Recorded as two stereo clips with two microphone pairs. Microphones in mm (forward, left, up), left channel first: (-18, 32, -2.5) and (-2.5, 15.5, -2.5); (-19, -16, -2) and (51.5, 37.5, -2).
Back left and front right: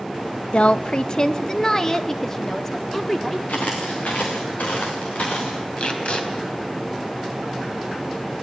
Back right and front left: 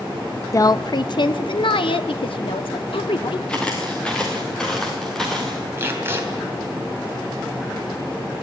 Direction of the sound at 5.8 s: 100° left.